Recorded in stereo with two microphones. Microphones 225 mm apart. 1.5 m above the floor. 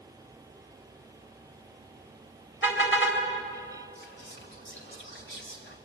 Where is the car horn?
60° left (ahead or behind), 4 m.